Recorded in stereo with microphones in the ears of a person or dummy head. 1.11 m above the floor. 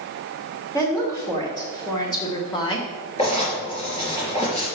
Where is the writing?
40° left (ahead or behind), 5 m.